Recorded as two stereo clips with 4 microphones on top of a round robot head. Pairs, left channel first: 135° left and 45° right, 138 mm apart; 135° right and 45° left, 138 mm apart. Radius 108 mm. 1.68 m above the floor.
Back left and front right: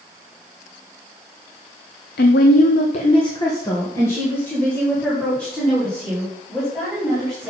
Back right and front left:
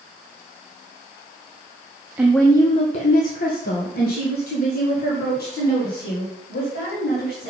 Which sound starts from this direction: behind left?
A woman speaking, at 2.2 s.